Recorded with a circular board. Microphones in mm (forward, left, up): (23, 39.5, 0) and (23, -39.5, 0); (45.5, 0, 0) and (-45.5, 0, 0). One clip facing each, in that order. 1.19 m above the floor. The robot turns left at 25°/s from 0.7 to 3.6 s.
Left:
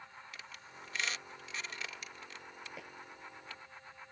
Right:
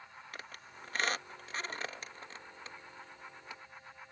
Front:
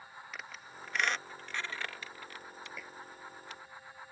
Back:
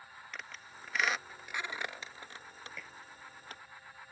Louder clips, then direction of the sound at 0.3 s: Right 2 dB, even; 85° right.